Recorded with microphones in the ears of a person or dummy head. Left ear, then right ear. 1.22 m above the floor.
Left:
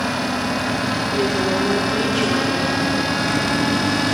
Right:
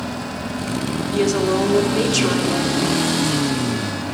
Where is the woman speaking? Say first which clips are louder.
Right 4 dB; 85° right, 3 m.